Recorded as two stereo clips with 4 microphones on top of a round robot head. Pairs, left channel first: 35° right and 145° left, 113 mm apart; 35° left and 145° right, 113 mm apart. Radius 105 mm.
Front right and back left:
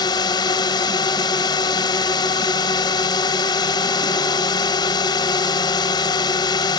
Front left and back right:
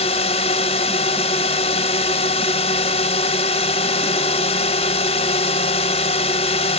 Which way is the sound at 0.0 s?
15° left.